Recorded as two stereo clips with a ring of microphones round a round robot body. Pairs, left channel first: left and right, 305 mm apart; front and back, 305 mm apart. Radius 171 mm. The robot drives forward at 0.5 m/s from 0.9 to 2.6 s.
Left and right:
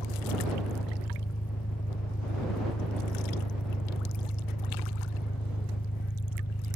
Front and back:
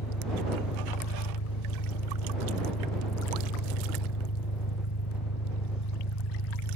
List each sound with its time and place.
0.0 s an engine running: 20° left; by 6.8 s 25° left